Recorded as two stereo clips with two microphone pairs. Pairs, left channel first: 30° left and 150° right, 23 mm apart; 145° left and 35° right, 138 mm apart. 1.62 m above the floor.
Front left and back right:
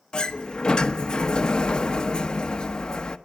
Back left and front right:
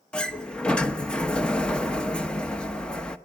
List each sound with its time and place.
0.1 s a sliding door: 65° left, 1.1 m